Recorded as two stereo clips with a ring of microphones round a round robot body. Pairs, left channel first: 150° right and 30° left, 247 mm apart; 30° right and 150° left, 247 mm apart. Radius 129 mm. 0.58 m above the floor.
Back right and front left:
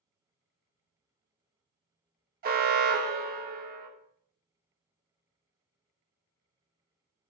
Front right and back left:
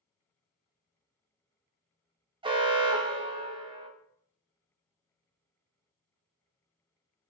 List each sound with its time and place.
2.4 s an alarm: 80° left, 0.7 m